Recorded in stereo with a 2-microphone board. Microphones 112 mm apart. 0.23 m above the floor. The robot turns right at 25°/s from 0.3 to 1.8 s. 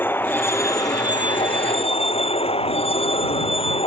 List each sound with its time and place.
0.0 s a vehicle: 20° left; by 3.9 s 55° left